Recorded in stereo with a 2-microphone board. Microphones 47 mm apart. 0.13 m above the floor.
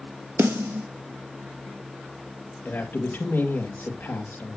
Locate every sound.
0.4 s a snare drum: 65° right (ahead or behind), 2 m
2.6 s a man speaking: 40° left (ahead or behind), 3.5 m